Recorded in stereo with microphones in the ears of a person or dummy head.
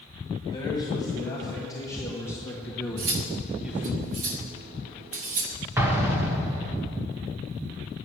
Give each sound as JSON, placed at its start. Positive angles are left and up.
{"t": 0.5, "sound": "a man speaking", "side_deg": 20, "distance_m": 2.5}
{"t": 3.0, "sound": "cutlery clinking", "side_deg": -35, "distance_m": 0.7}
{"t": 5.8, "sound": "an explosion", "side_deg": -15, "distance_m": 1.2}